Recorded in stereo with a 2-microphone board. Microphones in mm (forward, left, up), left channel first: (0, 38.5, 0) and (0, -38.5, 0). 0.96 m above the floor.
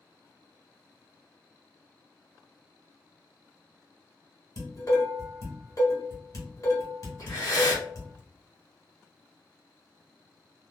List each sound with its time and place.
4.6 s dishes clattering: 40° left (ahead or behind), 1.4 m
7.2 s breathing: 45° left (ahead or behind), 1.4 m